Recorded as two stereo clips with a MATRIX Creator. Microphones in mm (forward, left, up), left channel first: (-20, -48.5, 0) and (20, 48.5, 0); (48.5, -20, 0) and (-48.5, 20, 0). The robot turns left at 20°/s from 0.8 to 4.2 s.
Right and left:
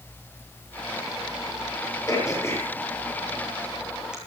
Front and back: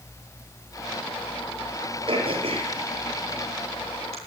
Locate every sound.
2.1 s throat clearing: 170° right, 9 m; by 4.2 s 150° left, 9 m